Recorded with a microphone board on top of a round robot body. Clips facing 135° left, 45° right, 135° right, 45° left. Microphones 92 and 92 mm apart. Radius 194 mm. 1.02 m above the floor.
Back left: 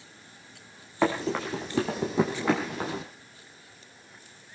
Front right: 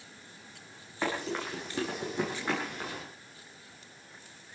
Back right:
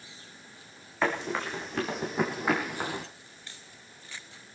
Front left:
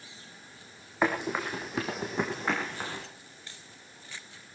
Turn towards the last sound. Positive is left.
turn(degrees=150)